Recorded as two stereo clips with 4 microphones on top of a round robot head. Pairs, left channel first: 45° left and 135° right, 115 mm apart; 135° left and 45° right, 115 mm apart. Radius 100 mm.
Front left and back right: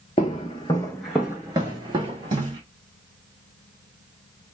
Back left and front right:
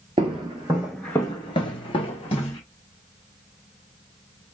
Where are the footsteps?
5° left, 0.7 m; by 2.6 s 175° left, 1.1 m.